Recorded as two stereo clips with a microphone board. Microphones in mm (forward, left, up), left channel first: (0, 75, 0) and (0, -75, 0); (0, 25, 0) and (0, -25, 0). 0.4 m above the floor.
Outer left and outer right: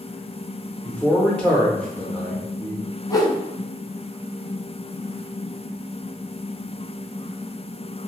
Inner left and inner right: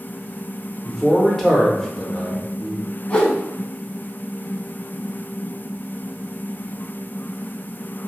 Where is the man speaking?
10° left (ahead or behind), 0.8 m.